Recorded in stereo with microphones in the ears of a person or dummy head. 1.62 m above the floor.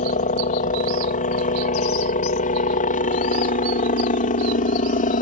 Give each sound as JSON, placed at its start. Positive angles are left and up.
{"t": 0.0, "sound": "a helicopter", "side_deg": 35}